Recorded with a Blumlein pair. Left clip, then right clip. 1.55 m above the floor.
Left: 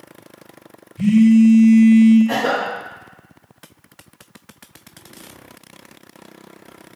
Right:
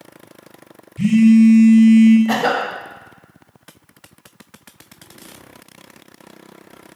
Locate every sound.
1.0 s a phone buzzing: 20° right, 0.5 m
2.3 s a cough: 20° right, 0.8 m